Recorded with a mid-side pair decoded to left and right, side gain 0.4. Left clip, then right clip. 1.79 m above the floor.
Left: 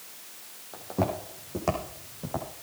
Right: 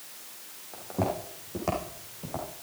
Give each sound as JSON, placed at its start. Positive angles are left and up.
{"t": 0.7, "sound": "footsteps", "azimuth_deg": 20, "distance_m": 6.5}